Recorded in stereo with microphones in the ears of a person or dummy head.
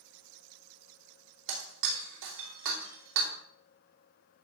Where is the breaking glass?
75° right (ahead or behind), 2.5 m.